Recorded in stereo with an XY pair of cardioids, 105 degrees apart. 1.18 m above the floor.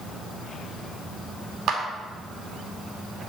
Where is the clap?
65° right, 2 m.